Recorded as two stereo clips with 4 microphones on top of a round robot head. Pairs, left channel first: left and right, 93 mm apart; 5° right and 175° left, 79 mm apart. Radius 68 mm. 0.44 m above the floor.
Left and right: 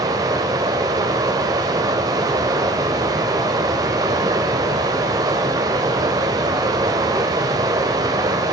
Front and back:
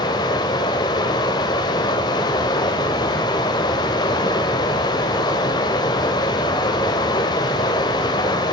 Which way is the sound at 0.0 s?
40° right.